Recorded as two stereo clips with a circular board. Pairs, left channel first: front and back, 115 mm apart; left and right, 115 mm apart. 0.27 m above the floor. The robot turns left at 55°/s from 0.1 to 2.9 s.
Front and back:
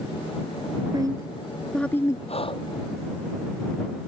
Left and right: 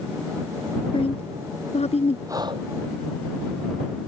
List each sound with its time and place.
0.9 s a woman speaking: 130° left; by 2.2 s 60° left
2.3 s breathing: 30° right; by 2.7 s 50° right